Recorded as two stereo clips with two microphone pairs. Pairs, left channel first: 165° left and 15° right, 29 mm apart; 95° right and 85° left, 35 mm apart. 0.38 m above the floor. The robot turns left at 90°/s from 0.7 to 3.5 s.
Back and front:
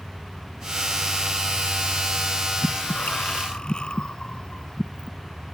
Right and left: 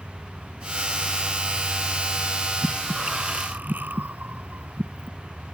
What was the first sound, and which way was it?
Breathing, 170° right.